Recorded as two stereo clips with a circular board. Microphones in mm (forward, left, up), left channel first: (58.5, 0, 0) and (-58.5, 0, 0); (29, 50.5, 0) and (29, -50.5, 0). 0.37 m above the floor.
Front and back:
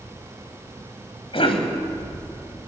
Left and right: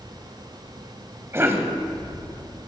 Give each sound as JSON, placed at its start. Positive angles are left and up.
{"t": 1.3, "sound": "a cough", "azimuth_deg": -30, "distance_m": 2.5}